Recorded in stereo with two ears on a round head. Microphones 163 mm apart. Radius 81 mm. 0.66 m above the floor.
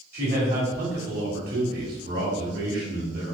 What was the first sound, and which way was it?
A man speaking, 55° right (ahead or behind).